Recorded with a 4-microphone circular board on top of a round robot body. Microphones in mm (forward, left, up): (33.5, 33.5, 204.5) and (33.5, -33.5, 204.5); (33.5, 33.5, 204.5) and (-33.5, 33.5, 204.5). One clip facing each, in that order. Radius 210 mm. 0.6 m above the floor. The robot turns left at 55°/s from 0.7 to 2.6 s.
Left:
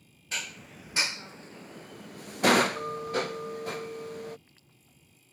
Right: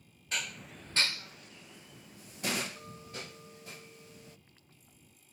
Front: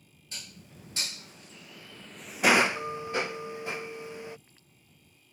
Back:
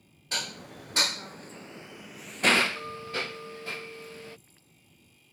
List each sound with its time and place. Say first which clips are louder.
0.3 s dishes clattering: even, back 12 dB; 175° left; by 4.4 s 75° left